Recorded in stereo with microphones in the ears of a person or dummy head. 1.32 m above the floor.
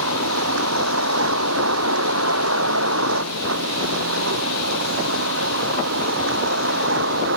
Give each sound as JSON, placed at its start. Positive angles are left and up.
{"t": 0.0, "sound": "a vehicle", "side_deg": -80}